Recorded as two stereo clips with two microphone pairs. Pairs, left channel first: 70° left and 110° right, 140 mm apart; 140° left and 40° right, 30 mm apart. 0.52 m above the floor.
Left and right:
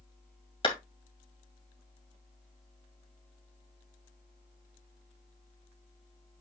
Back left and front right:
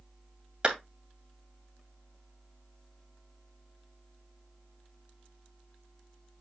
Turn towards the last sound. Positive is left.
turn(degrees=15)